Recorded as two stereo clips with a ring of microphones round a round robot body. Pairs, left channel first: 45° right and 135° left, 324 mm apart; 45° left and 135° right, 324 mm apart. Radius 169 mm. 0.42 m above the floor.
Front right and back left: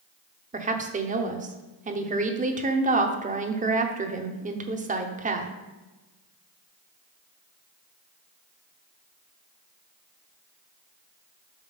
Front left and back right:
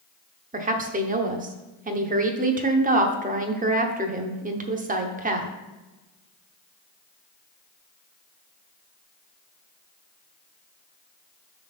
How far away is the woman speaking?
About 0.9 m.